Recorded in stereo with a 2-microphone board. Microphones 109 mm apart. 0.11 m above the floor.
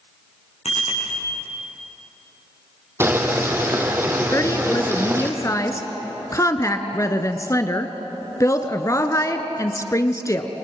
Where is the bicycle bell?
80° left, 7 m.